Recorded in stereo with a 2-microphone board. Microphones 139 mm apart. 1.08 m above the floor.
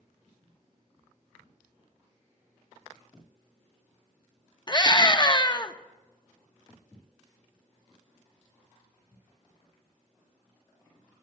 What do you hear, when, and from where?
4.7 s a scream: 30° left (ahead or behind), 1.1 m